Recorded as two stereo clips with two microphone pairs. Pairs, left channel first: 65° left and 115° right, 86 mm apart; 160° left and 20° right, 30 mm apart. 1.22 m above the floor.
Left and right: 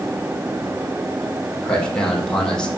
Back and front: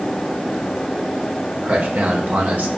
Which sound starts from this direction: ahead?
A man speaking, at 1.6 s.